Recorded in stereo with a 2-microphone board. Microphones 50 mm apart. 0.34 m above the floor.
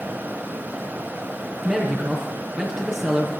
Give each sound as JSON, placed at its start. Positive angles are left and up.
{"t": 1.6, "sound": "a man speaking", "side_deg": -30, "distance_m": 4.0}